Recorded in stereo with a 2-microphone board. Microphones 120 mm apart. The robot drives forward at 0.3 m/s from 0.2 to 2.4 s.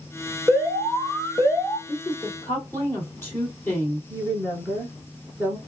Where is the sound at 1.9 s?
20° left (ahead or behind), 2 m.